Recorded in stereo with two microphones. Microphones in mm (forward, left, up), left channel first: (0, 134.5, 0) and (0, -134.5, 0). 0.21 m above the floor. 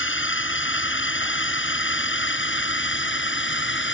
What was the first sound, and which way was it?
A drone, 45° left (ahead or behind).